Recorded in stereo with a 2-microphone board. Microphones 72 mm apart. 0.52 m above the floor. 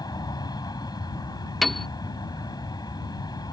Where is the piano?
Centre (ahead or behind).